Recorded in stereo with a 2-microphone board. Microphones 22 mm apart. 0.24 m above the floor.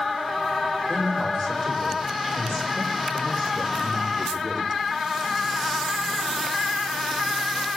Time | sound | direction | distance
0.9 | a man speaking | 55° left (ahead or behind) | 8 m